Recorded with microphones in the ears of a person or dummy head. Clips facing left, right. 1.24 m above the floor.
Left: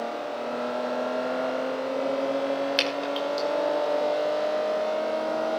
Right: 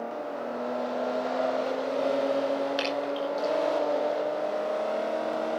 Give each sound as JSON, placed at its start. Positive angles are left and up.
{"t": 2.8, "sound": "dripping", "side_deg": 35, "distance_m": 6.0}